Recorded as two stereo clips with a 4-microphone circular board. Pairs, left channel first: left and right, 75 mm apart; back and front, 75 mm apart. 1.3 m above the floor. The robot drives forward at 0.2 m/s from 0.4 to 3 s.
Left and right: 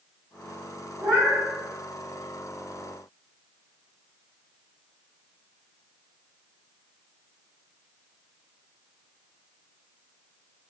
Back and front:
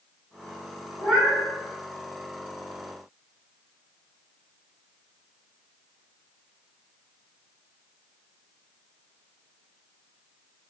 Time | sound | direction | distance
1.0 | a cat meowing | 80° right | 1.6 m